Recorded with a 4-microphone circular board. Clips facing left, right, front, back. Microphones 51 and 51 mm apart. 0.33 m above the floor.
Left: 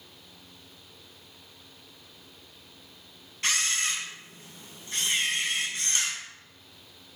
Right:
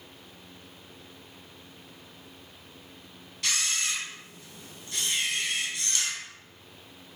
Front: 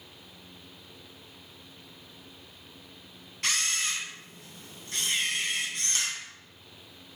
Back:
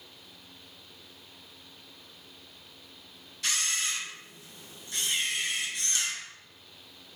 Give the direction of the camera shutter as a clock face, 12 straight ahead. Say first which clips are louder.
Left 2 dB, front 2 dB; 11 o'clock.